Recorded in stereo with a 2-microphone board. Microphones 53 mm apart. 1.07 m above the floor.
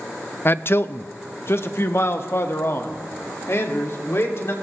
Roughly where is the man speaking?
Left.